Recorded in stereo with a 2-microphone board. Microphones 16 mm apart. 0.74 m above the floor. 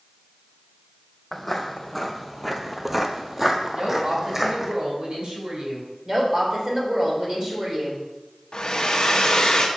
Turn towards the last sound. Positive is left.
turn(degrees=55)  # may be behind; listen again after turning